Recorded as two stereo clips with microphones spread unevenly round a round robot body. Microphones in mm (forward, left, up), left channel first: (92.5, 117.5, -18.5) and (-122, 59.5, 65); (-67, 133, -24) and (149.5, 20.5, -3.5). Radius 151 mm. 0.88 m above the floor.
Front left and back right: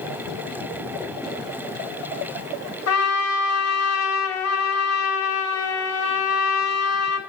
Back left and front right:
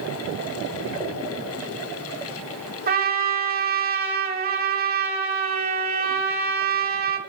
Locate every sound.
2.9 s a trumpet: 25° left, 2.5 m